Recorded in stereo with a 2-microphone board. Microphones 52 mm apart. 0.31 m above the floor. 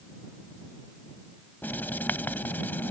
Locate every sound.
1.6 s writing: 35° left (ahead or behind)